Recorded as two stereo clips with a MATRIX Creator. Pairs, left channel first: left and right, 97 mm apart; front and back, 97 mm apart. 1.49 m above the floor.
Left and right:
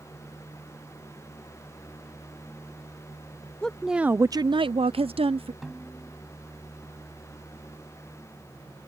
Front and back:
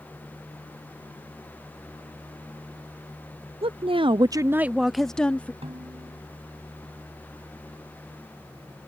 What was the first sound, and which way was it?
A woman speaking, 170° left.